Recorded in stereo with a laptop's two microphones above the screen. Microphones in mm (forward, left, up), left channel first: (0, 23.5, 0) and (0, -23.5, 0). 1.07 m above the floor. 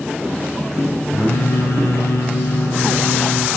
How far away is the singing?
About 2.5 m.